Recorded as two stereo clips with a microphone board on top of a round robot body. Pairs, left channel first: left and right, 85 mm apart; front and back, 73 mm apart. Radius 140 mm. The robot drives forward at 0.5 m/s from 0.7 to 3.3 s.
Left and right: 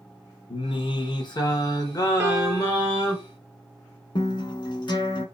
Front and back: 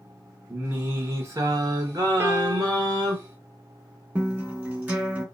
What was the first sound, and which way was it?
Singing, 115° left.